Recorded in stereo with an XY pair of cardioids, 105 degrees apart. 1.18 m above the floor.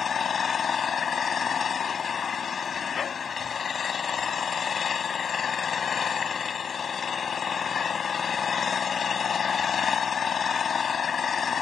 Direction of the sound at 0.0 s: 45° left.